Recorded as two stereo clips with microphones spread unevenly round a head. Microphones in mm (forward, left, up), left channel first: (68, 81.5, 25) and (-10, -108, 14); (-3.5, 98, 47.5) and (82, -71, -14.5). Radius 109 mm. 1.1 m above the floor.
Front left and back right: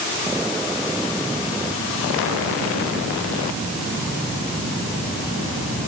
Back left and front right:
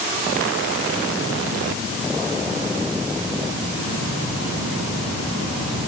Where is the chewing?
I don't hear chewing.